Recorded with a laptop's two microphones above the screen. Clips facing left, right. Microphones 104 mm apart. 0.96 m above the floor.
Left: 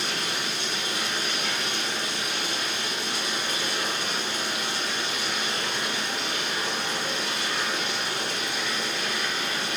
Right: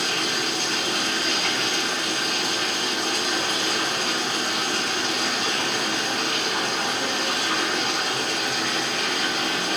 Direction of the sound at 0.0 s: 60° right (ahead or behind).